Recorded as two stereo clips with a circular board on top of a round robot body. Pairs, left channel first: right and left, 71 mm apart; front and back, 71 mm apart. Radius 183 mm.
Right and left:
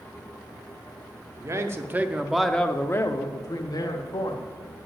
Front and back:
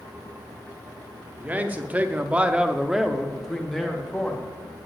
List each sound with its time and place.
1.4 s a man speaking: 120° left, 1.2 m; by 4.5 s 80° right, 1.7 m